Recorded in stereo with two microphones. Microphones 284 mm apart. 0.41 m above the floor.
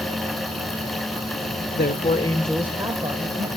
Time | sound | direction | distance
1.8 | a man speaking | 35° left (ahead or behind) | 1.2 m